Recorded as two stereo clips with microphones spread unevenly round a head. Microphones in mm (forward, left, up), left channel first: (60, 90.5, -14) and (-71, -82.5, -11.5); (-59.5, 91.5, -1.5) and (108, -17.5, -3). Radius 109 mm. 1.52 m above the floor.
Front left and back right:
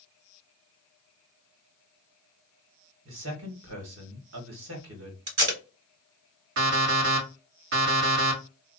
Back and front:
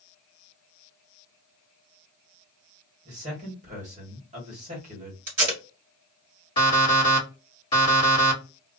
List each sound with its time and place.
3.0 s a man speaking: 95° right, 1.3 m
5.3 s tape being pulled: 80° right, 1.7 m
6.6 s an alarm clock: 145° right, 1.5 m